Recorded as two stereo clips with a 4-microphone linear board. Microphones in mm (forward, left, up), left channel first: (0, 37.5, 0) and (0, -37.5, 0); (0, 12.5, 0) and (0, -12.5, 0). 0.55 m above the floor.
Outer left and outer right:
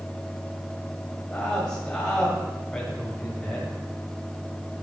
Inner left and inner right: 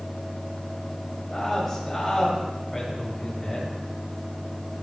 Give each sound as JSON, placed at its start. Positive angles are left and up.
{"t": 1.3, "sound": "a man speaking", "side_deg": 20, "distance_m": 2.5}